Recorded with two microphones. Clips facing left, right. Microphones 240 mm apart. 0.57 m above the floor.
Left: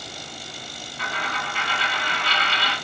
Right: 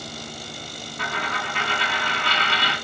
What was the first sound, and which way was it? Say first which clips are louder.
A dropped coin: right 2 dB; 50° right (ahead or behind).